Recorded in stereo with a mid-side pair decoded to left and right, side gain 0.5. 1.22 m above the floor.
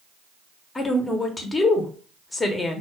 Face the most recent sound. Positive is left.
turn(degrees=25)